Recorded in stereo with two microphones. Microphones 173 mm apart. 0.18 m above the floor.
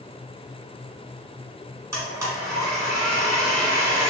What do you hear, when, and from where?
1.9 s a blender: 20° right (ahead or behind), 1.3 m